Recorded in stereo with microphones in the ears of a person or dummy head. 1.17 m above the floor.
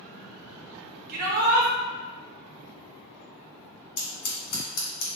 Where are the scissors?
75° left (ahead or behind), 1.5 m.